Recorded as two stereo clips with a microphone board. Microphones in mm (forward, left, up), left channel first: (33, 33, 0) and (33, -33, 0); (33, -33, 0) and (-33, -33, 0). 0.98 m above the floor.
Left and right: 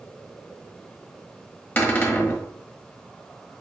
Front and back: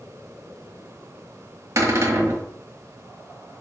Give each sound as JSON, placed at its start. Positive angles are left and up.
{"t": 1.8, "sound": "a cupboard door", "azimuth_deg": 145, "distance_m": 1.6}